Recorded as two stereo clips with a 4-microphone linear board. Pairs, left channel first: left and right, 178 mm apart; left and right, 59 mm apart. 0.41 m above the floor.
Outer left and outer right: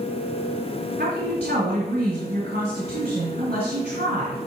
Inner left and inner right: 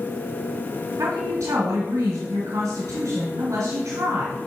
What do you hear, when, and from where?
1.0 s a woman speaking: 60° right (ahead or behind), 1.9 m